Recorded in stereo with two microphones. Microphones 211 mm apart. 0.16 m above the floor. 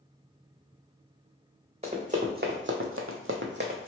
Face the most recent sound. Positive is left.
turn(degrees=-40)  # may be behind; listen again after turning